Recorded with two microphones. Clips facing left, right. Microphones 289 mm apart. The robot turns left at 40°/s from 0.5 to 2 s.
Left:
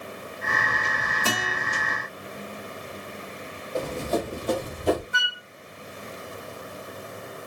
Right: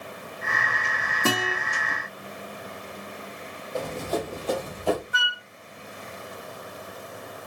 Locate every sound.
1.2 s a guitar: 65° right (ahead or behind), 1.8 m; by 1.6 s 75° right (ahead or behind), 1.8 m
3.8 s running footsteps: 5° left (ahead or behind), 2.5 m; by 5.0 s 20° left (ahead or behind), 1.9 m
5.1 s a flute: 30° left (ahead or behind), 1.2 m